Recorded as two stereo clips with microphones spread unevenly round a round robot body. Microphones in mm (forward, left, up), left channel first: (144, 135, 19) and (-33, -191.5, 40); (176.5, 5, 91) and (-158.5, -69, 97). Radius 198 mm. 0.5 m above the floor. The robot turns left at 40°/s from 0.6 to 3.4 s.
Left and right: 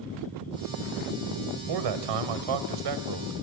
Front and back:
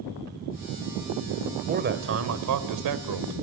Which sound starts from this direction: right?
A man speaking, at 1.7 s.